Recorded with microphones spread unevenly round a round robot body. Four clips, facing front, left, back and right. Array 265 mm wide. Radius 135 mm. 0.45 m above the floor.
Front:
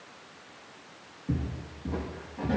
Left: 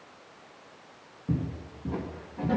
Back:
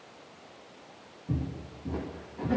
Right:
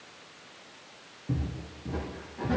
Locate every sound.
1.3 s footsteps: 75° left, 7.5 m; by 2.6 s 85° left, 8.5 m